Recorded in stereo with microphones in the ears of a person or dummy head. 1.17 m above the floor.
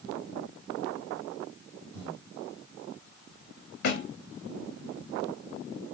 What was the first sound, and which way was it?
Breathing, 25° right (ahead or behind).